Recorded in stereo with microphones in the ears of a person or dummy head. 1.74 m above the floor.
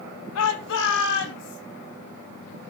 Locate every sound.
0.3 s a shout: 70° left (ahead or behind), 1.8 m; by 1.6 s 60° left (ahead or behind), 3.5 m